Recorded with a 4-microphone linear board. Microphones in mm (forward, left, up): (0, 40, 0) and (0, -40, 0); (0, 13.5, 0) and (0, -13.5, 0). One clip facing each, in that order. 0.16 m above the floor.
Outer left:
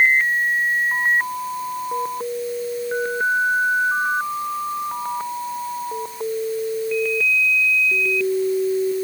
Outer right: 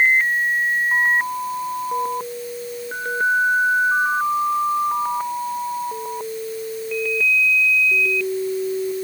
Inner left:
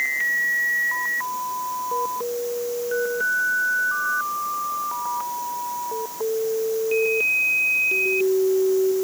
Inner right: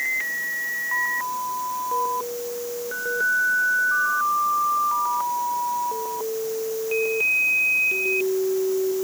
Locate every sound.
Only background noise.